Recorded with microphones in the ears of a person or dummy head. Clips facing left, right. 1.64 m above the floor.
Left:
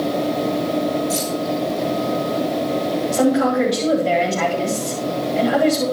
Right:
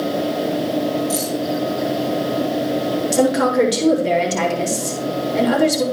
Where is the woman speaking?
70° right (ahead or behind), 7 m.